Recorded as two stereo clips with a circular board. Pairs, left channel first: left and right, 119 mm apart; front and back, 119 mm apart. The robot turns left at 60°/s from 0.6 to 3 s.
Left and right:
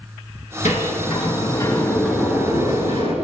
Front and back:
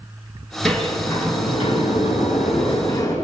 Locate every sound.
0.7 s a sliding door: 85° left, 5.5 m; by 3.1 s 55° right, 5.5 m